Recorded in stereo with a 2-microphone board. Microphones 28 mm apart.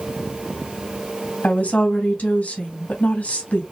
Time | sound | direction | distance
1.4 | a woman speaking | 65° left (ahead or behind) | 2.5 m